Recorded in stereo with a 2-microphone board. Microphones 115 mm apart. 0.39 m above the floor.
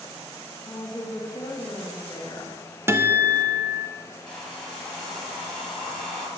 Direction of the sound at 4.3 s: 5° left (ahead or behind).